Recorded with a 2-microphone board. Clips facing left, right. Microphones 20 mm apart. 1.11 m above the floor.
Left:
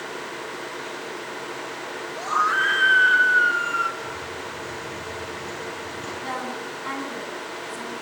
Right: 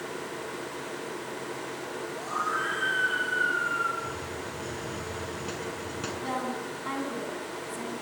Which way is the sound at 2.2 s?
65° left (ahead or behind).